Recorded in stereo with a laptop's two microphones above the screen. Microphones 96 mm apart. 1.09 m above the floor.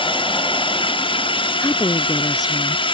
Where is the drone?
65° left (ahead or behind).